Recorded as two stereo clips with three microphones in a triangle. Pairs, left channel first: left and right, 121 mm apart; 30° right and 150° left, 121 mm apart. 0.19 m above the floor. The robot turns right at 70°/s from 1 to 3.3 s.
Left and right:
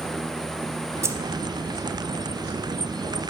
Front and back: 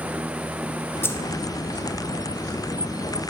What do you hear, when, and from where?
1.0 s keys jangling: 70° right, 0.7 m; by 1.2 s 60° right, 0.7 m